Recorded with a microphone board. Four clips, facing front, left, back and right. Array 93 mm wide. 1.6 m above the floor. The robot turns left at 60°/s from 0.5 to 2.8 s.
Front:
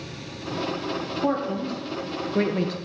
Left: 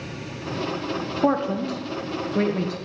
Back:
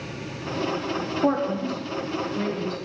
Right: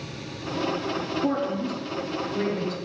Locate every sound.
1.2 s a man speaking: 110° left, 0.7 m; by 2.8 s 15° left, 0.7 m